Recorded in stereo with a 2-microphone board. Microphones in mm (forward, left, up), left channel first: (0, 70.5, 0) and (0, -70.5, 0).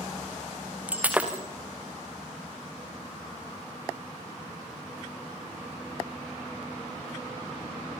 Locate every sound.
0.9 s breaking glass: 10° right (ahead or behind), 4 m